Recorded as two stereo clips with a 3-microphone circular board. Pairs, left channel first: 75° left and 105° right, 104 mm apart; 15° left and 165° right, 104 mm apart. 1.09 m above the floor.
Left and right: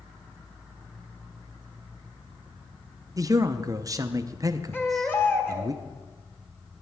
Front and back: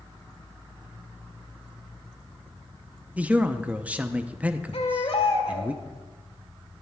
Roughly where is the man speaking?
Right.